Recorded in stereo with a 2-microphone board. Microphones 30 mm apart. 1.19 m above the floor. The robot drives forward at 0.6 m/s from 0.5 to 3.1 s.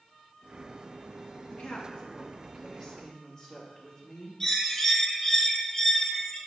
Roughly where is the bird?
Centre.